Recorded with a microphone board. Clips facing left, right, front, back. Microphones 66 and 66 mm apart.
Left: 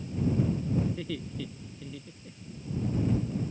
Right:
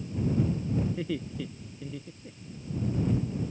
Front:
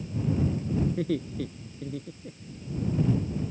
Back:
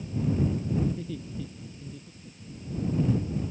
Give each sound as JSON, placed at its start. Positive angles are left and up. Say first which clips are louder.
{"t": 0.9, "sound": "laughter", "louder": "right 2 dB, front 5 dB", "azimuth_deg": -15}